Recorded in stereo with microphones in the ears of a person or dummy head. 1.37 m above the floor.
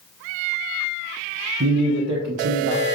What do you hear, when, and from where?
1.6 s a man speaking: 65° right (ahead or behind), 0.8 m